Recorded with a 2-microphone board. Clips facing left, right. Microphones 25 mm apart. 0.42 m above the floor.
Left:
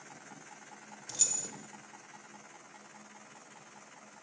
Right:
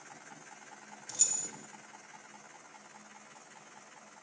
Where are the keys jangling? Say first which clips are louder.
Left 1 dB; 15° left (ahead or behind), 0.7 m.